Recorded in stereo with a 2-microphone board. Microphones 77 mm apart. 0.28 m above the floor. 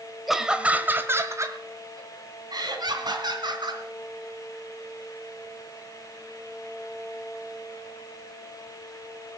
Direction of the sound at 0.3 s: 5° right (ahead or behind).